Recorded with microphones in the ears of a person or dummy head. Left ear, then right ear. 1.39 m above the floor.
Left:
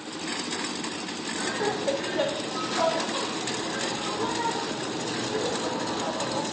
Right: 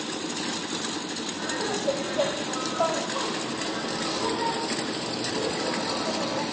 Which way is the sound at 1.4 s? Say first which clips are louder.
Left 2 dB; 80° left.